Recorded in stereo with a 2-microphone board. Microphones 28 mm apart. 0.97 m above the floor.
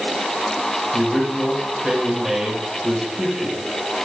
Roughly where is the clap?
I don't hear a clap.